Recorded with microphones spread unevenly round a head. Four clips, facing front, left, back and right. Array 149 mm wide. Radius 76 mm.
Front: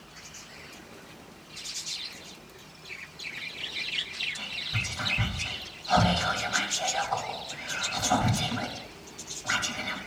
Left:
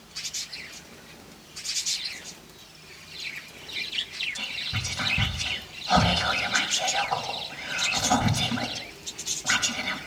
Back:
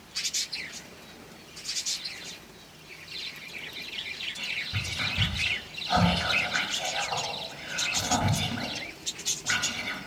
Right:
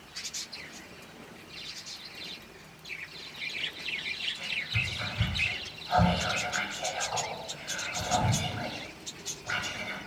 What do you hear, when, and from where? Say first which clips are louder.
4.3 s whispering: even, back 1 dB; 100° left, 3 m